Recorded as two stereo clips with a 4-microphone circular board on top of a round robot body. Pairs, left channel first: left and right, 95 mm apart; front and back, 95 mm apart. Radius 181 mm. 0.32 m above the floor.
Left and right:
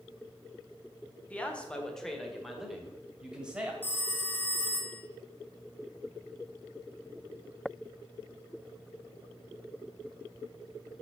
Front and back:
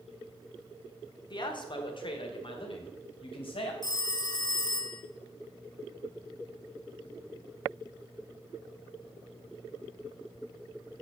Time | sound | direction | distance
1.3 | a man speaking | 20° left | 1.6 m
3.8 | a phone ringing | 25° left | 1.0 m